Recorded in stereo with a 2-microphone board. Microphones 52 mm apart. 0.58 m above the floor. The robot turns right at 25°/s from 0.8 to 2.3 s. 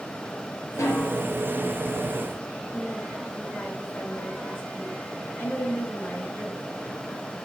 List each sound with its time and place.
0.8 s a snare drum: 65° left (ahead or behind), 4 m; by 1.2 s 55° left (ahead or behind), 4 m
2.7 s a woman speaking: 45° left (ahead or behind), 7 m